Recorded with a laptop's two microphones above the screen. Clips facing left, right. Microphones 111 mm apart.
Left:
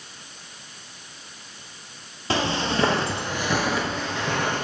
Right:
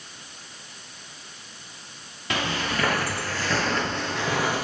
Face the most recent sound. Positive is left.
turn(degrees=-5)  # may be behind; listen again after turning